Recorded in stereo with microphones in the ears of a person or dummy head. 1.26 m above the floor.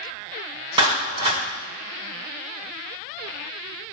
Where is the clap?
30° right (ahead or behind), 3 m.